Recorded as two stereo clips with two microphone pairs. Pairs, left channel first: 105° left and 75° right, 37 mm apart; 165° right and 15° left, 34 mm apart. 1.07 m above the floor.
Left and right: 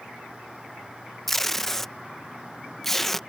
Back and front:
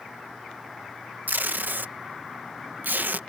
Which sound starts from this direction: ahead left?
Tape being pulled, at 1.3 s.